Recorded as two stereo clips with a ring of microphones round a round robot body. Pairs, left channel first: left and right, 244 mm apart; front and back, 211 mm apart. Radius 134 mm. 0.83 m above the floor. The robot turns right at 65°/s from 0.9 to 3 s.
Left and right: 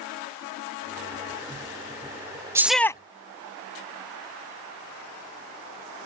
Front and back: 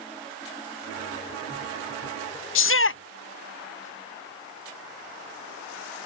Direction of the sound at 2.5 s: 10° right.